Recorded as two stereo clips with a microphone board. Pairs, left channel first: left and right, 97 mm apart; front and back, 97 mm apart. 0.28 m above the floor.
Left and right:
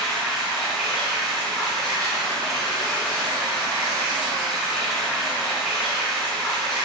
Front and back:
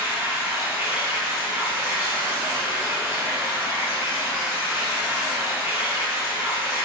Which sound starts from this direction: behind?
Running water, at 0.0 s.